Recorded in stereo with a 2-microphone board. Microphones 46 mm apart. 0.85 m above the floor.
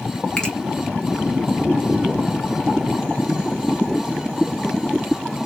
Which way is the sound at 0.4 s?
20° left (ahead or behind).